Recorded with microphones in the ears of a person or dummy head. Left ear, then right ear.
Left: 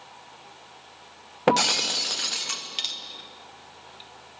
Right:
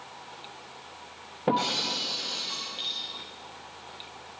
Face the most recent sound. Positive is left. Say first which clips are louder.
# left 5 dB
turn(degrees=45)  # may be behind; listen again after turning